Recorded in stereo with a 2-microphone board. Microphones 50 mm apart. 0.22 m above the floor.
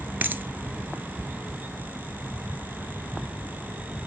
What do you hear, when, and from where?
0.2 s a dropped coin: 45° right (ahead or behind), 0.8 m